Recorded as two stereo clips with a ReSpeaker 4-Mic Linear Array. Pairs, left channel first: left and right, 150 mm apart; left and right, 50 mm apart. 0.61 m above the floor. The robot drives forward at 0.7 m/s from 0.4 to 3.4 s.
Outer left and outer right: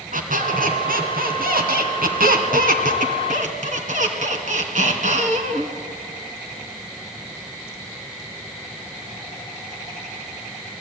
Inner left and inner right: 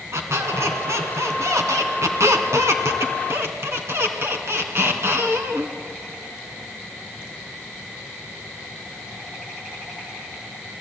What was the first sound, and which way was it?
A squeak, 65° right (ahead or behind).